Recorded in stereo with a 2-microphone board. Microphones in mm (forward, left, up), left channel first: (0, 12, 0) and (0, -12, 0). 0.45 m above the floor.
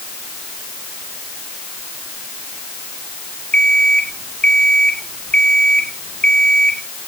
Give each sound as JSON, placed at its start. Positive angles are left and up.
{"t": 3.5, "sound": "an alarm clock", "side_deg": 45, "distance_m": 2.0}